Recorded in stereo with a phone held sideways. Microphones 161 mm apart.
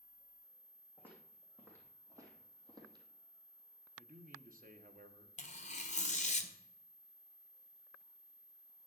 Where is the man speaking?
60° right (ahead or behind), 1.0 m.